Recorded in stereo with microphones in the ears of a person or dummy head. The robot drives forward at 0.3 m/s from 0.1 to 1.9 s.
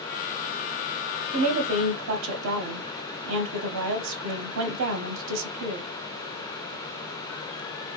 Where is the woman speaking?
85° right, 0.8 m; by 5.9 s 70° right (ahead or behind), 0.8 m.